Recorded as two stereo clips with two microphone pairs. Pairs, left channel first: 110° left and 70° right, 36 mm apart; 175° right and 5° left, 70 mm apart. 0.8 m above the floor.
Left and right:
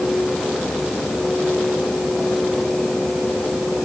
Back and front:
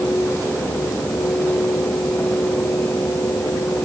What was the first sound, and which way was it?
Only background noise.